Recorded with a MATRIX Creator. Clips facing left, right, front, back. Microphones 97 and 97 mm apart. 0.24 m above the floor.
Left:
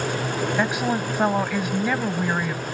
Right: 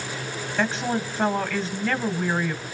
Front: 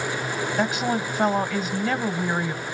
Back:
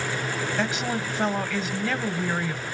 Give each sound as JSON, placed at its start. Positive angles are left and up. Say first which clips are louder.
{"t": 0.6, "sound": "a woman speaking", "louder": "right 1 dB, front 5 dB", "azimuth_deg": 40, "distance_m": 1.3}